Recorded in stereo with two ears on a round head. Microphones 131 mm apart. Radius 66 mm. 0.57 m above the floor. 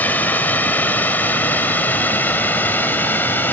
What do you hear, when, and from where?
0.0 s a drone: 10° left (ahead or behind); by 3.5 s 15° left (ahead or behind)